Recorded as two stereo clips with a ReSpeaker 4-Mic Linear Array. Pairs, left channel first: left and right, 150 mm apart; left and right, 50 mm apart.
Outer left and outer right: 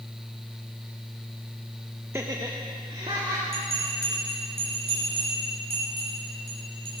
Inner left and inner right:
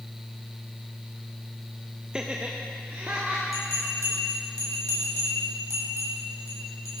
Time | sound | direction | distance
2.1 | laughter | 15° right (ahead or behind) | 0.9 m
3.5 | a bell | 90° right | 7 m